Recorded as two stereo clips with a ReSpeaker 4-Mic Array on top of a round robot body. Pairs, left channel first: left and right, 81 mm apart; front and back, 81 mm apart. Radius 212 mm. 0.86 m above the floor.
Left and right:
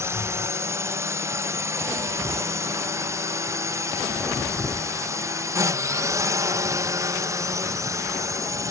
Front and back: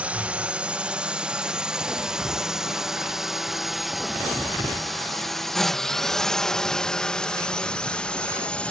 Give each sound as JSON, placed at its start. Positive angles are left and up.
{"t": 0.0, "sound": "a drone", "azimuth_deg": -115}